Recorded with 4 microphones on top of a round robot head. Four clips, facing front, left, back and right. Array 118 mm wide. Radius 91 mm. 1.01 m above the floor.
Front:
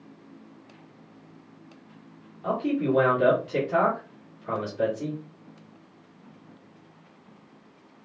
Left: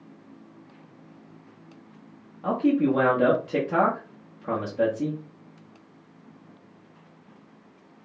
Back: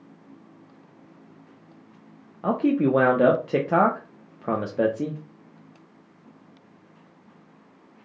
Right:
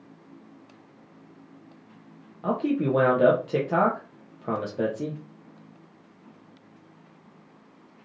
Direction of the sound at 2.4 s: 165° right.